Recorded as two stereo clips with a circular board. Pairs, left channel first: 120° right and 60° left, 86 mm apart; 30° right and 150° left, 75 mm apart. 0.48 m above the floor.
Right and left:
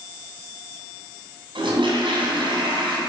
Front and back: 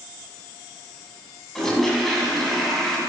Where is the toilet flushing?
55° left, 2 m.